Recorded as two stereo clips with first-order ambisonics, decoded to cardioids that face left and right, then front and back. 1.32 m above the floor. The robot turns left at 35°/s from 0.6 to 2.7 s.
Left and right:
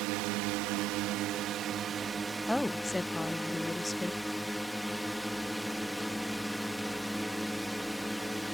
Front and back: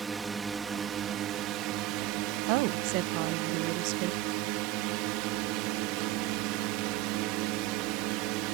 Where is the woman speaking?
Straight behind; by 4.2 s 170° left.